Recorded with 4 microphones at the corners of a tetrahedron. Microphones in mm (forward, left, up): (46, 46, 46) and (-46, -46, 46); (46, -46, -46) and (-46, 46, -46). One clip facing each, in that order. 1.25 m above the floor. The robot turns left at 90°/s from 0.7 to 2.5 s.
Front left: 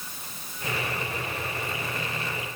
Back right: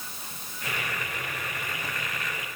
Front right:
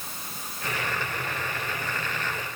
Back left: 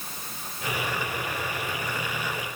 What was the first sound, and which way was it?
Only background noise.